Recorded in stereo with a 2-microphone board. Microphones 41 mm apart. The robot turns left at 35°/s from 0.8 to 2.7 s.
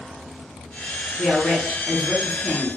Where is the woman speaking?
5° left, 1.9 m; by 2.8 s 50° right, 1.9 m.